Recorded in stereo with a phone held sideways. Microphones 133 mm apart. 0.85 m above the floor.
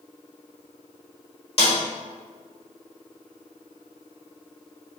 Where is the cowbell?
No cowbell in this recording.